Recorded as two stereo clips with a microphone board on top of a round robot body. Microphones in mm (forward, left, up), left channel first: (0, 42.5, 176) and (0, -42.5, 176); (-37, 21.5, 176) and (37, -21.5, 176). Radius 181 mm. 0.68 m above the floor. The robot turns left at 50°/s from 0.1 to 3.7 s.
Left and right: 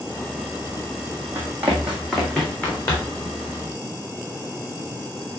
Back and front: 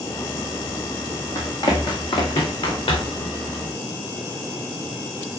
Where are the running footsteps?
155° right, 1.3 m; by 3.2 s 135° left, 3.5 m.